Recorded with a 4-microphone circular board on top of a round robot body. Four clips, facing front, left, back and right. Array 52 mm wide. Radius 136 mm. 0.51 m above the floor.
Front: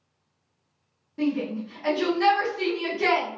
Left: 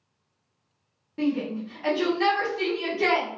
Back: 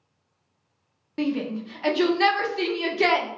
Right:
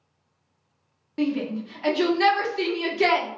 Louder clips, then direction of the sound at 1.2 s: Right 1 dB, even; 150° right.